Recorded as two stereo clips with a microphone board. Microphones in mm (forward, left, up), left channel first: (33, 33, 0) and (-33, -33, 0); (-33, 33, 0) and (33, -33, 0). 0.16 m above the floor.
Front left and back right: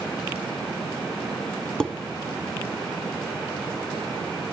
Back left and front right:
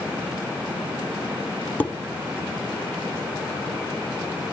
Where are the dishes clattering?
110° left, 0.8 m.